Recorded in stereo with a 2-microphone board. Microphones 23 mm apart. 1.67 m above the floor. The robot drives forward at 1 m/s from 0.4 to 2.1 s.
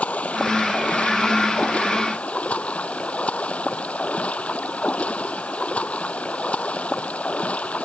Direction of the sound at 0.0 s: 65° left (ahead or behind).